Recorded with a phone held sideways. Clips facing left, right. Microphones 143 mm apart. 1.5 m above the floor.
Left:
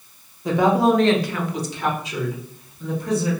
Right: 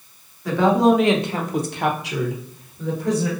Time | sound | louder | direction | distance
0.5 | a woman speaking | right 1 dB | 20° left (ahead or behind) | 0.7 m